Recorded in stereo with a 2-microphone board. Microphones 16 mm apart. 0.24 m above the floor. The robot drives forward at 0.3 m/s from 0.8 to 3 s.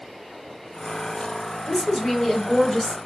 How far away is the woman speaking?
About 0.9 m.